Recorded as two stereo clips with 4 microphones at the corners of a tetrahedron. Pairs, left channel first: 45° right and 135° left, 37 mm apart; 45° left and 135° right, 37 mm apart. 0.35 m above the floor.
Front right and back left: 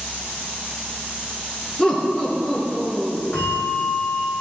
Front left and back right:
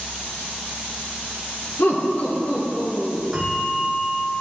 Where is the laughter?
30° left, 3.5 m; by 3.2 s 40° left, 4.5 m.